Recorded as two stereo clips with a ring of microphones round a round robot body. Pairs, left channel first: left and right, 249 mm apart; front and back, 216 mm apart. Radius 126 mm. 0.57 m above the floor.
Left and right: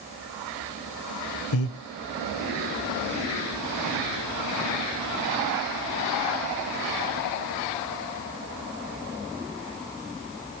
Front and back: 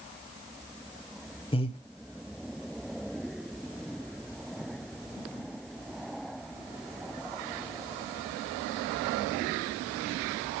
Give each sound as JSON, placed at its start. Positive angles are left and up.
{"t": 1.5, "sound": "breathing", "azimuth_deg": 65, "distance_m": 1.6}